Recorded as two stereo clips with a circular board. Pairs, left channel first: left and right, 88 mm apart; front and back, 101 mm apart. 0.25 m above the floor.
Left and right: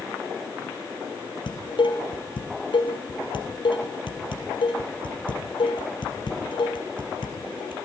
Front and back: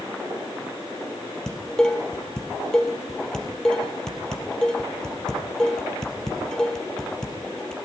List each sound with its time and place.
1.5 s dishes clattering: 80° left, 3.5 m